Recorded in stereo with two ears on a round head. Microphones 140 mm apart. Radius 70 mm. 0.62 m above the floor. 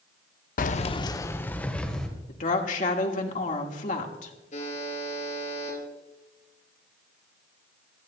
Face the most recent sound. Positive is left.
turn(degrees=50)  # may be behind; listen again after turning